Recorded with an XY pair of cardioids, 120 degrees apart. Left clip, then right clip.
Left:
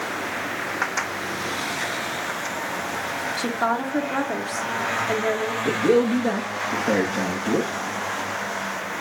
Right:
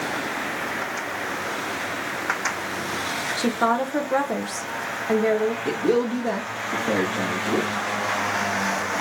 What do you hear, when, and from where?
3.4 s a woman speaking: 15° right, 1.0 m
5.7 s a man speaking: 20° left, 1.4 m